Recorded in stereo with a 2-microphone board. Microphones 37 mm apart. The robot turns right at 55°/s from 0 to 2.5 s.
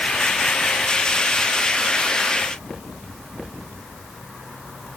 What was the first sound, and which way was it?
Only background noise.